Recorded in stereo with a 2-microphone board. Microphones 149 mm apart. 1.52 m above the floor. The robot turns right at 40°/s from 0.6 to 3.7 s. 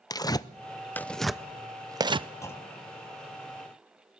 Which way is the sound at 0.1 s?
25° left (ahead or behind).